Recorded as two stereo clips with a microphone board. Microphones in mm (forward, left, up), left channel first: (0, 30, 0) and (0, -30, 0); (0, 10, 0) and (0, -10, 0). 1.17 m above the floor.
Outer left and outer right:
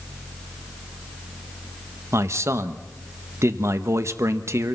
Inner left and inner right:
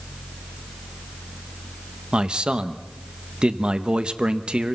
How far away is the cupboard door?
I don't hear a cupboard door.